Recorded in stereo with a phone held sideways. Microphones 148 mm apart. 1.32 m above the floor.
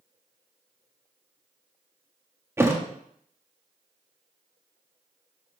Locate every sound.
2.6 s a thud: 15° right (ahead or behind), 0.9 m